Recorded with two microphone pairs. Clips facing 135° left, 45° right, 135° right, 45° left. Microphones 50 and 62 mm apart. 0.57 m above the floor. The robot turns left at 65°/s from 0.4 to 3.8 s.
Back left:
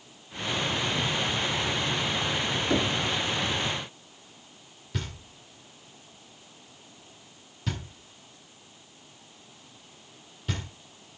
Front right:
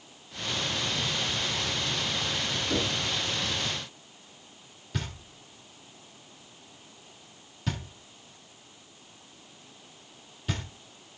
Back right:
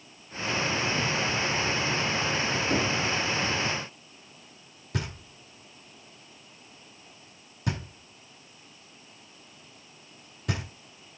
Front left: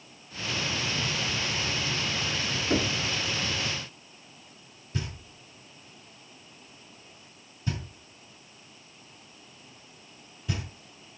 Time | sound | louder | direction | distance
2.7 | knocking | back left 4 dB, front left 2 dB | 135° left | 1.0 m
4.9 | knocking | even, back right 2 dB | 140° right | 1.4 m